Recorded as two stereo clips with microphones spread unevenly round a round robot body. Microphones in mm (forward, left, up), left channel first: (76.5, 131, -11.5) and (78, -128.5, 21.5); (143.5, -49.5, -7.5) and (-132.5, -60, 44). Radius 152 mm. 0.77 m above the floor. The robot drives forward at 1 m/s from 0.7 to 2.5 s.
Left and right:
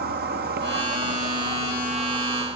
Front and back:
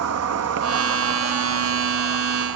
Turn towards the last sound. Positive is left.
turn(degrees=-170)